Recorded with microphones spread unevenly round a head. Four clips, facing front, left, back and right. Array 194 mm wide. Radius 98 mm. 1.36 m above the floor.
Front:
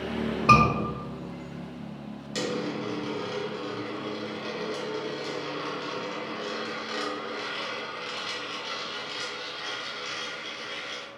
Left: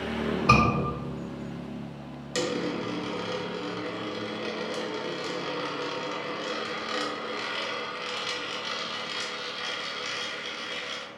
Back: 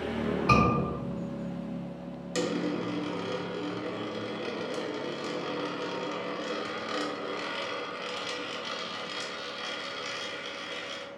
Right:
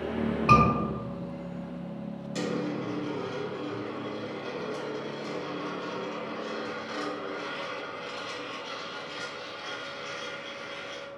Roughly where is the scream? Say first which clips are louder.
Right 1 dB, front 6 dB; ahead.